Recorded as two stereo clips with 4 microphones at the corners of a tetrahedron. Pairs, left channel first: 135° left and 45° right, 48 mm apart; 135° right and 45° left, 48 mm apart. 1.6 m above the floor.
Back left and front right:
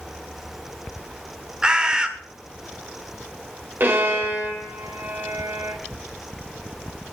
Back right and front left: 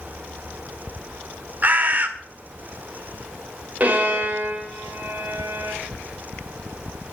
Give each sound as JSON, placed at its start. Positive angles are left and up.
{"t": 1.6, "sound": "a bird", "azimuth_deg": 15, "distance_m": 1.6}
{"t": 3.8, "sound": "a violin", "azimuth_deg": -10, "distance_m": 4.0}